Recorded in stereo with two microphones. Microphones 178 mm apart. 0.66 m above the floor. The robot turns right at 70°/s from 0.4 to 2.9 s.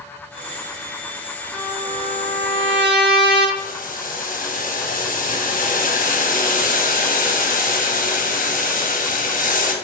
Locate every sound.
1.5 s a trumpet: 165° right, 0.7 m; by 3.5 s 70° right, 0.7 m
3.6 s boiling: 50° left (ahead or behind), 0.6 m